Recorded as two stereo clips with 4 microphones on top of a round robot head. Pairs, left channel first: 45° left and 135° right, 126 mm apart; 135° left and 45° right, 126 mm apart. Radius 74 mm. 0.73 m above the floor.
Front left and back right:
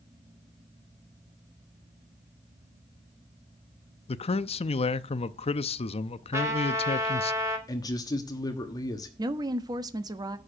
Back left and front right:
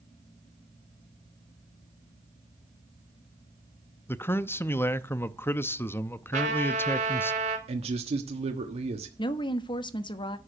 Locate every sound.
4.1 s a man speaking: 65° left, 0.6 m
6.3 s a trumpet: 70° right, 2.5 m
7.7 s a man speaking: 10° right, 1.3 m
9.2 s a woman speaking: 175° left, 1.2 m